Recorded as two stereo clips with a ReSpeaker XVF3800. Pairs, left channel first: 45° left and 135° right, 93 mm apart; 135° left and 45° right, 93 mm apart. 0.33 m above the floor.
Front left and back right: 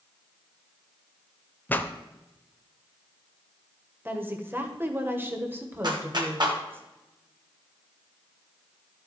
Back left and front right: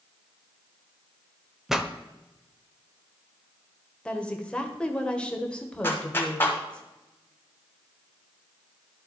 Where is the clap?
160° right, 2 m.